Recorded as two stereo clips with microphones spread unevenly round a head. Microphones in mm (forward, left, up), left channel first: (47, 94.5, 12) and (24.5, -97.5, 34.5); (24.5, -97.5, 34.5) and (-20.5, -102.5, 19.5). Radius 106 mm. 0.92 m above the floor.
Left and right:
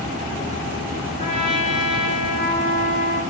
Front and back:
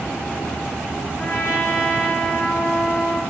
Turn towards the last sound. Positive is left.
turn(degrees=35)